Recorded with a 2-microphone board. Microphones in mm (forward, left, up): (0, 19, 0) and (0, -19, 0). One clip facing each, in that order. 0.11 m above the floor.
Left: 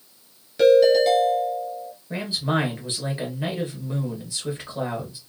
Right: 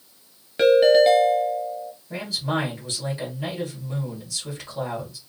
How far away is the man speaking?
About 1.7 m.